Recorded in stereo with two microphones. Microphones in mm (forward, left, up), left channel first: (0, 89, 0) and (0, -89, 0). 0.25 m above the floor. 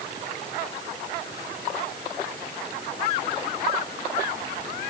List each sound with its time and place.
Only background noise.